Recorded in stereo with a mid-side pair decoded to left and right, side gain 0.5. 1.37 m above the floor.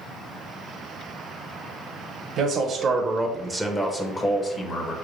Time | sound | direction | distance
2.4 | a man speaking | 60° right | 0.6 m